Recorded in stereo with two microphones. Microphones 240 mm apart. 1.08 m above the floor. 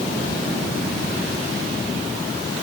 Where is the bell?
I don't hear a bell.